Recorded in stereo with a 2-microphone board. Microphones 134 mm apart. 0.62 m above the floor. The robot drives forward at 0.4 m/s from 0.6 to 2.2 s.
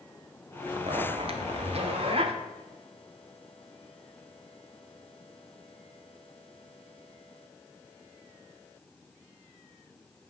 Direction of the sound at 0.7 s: 40° right (ahead or behind).